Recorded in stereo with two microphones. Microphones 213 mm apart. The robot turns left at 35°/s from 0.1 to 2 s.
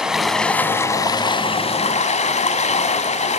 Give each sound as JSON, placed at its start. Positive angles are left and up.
{"t": 0.0, "sound": "running water", "azimuth_deg": -175, "distance_m": 1.6}